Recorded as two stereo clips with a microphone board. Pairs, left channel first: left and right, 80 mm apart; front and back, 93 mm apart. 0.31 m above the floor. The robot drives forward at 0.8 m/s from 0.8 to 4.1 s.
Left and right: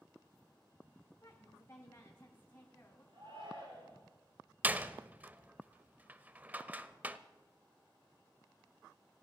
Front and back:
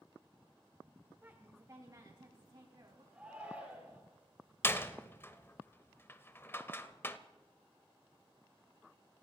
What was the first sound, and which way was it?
A woman speaking, 120° left.